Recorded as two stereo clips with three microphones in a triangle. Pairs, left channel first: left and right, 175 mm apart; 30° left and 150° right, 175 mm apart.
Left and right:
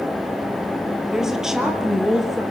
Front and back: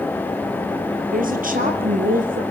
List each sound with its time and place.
1.1 s a woman speaking: 175° right, 3.5 m